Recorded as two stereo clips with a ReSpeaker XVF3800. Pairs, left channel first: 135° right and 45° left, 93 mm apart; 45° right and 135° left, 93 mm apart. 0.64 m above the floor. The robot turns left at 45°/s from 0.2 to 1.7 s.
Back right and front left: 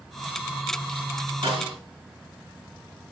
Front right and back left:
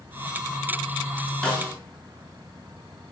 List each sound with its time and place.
1.4 s a snare drum: 35° left, 6 m; by 1.8 s 25° left, 6 m